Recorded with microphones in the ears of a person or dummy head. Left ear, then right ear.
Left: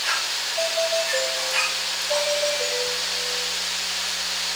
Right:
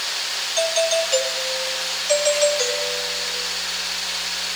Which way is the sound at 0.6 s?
70° right (ahead or behind).